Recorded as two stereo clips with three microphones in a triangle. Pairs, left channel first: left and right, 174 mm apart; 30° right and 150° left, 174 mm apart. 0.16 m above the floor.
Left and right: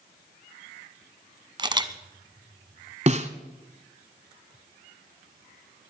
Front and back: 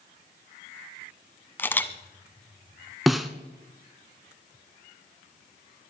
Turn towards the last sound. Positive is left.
turn(degrees=-120)